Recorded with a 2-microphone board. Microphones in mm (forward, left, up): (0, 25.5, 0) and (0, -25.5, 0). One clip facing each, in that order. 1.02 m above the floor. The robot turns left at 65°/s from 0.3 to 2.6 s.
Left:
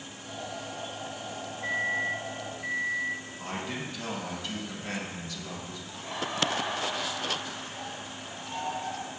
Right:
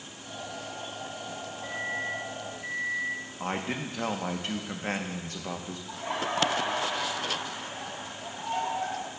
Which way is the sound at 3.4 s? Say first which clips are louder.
Right 6 dB; 40° right (ahead or behind).